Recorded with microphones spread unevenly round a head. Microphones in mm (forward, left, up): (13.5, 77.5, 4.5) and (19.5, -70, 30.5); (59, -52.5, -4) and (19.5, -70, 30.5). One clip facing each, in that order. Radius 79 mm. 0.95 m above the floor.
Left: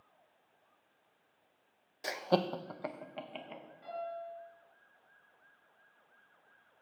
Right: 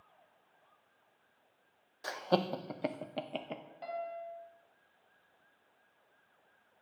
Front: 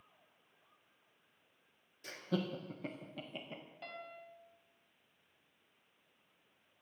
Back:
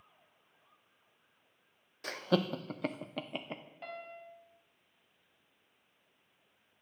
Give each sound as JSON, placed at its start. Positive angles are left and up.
{"t": 2.0, "sound": "laughter", "azimuth_deg": 145, "distance_m": 0.6}
{"t": 3.8, "sound": "a piano", "azimuth_deg": -90, "distance_m": 3.0}